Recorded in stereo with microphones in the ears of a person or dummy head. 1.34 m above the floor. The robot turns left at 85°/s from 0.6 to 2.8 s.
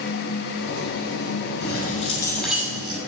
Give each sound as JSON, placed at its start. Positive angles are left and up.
{"t": 1.6, "sound": "keys jangling", "azimuth_deg": 75, "distance_m": 6.0}